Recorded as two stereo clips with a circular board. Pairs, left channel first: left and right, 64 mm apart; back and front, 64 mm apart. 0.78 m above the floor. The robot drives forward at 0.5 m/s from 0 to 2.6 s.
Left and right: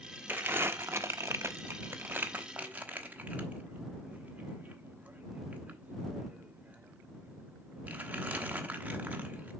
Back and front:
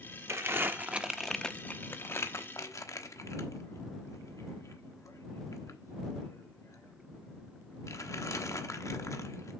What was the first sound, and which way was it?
Crumpling, 35° right.